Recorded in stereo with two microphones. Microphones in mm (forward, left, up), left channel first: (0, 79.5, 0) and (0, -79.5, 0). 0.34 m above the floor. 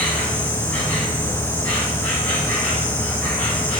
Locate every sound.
0.0 s an insect: 10° left (ahead or behind), 2.0 m